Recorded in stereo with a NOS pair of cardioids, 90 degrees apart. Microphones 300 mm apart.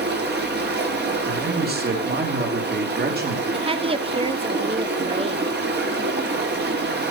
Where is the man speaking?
35° right, 2.5 m.